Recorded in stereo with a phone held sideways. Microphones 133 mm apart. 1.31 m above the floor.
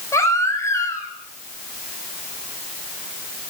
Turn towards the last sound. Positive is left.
turn(degrees=25)  # may be behind; listen again after turning